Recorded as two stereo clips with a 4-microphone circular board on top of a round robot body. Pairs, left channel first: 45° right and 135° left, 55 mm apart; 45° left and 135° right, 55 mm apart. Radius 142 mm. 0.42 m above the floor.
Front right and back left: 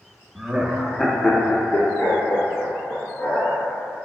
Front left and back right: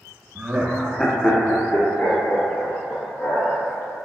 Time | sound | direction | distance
0.3 | laughter | straight behind | 0.8 m